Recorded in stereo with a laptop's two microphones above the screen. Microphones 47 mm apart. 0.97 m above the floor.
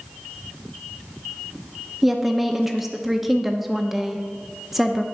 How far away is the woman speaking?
About 0.7 m.